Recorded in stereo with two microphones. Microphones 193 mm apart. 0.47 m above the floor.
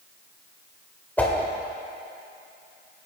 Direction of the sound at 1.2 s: 10° left (ahead or behind).